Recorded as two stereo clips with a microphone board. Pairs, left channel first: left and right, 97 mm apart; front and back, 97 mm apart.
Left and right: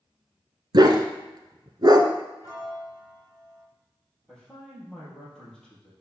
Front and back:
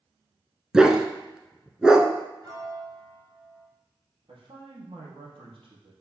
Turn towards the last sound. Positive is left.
turn(degrees=170)